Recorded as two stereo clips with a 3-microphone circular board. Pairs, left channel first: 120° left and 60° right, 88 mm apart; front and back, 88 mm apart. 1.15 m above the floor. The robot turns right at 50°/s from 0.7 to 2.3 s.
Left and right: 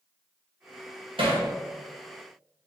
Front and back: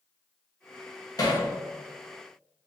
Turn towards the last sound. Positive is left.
turn(degrees=5)